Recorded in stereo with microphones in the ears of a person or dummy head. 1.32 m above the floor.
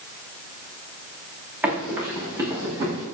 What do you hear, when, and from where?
1.6 s running footsteps: 10° right (ahead or behind), 7 m; by 3.0 s 20° right (ahead or behind), 6.5 m